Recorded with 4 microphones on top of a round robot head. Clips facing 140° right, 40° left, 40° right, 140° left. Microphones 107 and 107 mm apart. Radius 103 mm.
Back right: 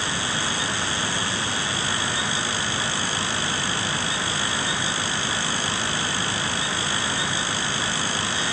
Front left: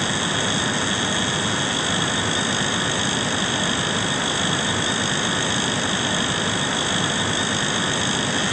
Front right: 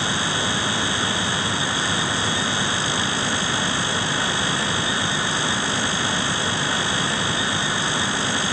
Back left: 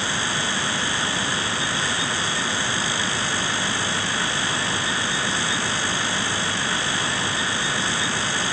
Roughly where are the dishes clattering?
No dishes clattering in this recording.